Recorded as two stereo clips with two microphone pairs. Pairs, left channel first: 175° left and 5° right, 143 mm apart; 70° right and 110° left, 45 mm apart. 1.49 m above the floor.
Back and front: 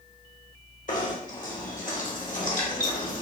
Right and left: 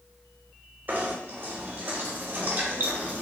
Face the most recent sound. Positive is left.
turn(degrees=155)